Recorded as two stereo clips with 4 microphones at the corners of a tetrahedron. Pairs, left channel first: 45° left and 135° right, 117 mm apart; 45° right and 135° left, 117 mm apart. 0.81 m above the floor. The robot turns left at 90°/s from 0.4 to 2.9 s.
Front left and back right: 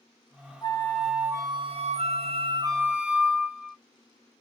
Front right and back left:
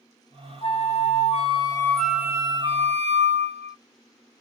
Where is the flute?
5° right, 0.6 m; by 3.8 s 150° left, 0.6 m.